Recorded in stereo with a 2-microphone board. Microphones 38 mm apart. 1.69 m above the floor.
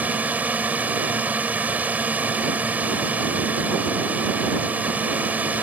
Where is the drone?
45° right (ahead or behind).